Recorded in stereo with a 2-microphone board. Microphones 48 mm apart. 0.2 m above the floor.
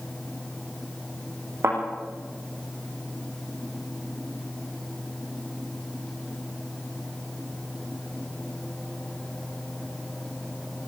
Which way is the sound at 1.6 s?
65° right (ahead or behind).